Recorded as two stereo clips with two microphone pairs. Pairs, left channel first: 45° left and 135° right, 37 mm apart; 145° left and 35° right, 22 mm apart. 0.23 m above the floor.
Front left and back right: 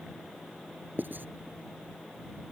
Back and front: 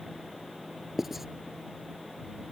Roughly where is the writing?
Right.